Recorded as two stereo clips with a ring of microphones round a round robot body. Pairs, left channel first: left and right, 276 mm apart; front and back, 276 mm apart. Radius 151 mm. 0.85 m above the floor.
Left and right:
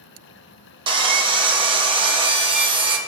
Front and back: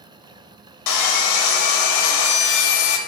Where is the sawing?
20° right, 0.7 m.